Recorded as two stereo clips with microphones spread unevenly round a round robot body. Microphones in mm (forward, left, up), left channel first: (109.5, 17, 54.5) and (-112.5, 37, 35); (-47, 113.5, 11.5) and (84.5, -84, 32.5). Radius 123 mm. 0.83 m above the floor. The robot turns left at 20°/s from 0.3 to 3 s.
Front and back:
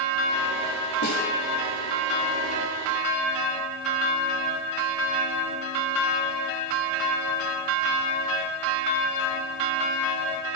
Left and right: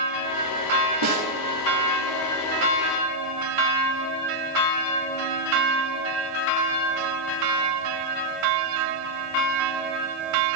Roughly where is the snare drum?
Ahead right.